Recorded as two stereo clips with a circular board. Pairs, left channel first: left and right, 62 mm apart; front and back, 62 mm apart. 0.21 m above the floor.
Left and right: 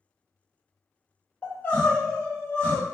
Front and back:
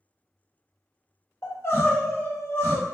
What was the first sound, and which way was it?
Crying, 30° left.